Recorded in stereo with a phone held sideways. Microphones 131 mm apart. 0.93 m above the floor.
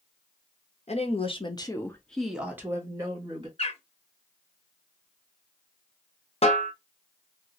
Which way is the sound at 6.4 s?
50° left (ahead or behind).